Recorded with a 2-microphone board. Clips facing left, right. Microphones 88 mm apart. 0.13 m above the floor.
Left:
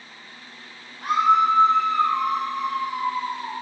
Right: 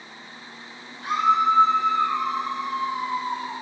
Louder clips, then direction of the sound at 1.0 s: Left 2 dB; 55° left (ahead or behind).